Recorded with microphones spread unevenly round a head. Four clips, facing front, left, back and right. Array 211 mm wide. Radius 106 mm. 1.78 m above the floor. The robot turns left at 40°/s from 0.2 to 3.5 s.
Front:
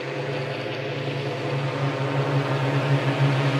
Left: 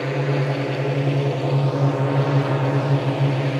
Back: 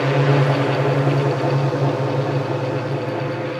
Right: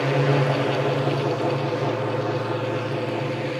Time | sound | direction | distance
0.0 | a drone | 175° right | ?